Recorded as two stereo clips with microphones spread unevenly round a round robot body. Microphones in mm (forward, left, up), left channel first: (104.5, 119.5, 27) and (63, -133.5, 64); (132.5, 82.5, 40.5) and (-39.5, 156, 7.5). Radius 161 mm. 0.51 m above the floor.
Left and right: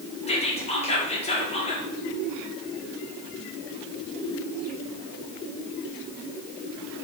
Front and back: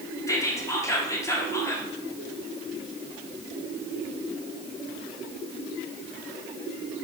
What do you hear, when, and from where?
0.3 s whispering: 55° left, 0.9 m